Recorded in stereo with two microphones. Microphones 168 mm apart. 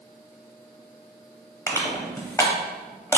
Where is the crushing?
15° left (ahead or behind), 0.6 m.